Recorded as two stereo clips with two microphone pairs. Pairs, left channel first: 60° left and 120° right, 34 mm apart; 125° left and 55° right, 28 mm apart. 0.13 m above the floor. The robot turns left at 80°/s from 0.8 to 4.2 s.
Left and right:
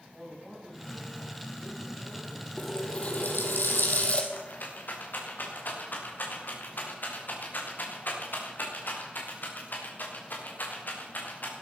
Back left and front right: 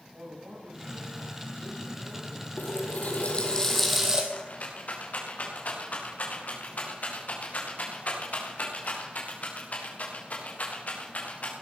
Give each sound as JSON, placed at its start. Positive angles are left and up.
{"t": 0.1, "sound": "a man speaking", "azimuth_deg": -30, "distance_m": 8.0}
{"t": 2.6, "sound": "a running tap", "azimuth_deg": 140, "distance_m": 2.5}
{"t": 4.3, "sound": "a rattle", "azimuth_deg": 90, "distance_m": 5.0}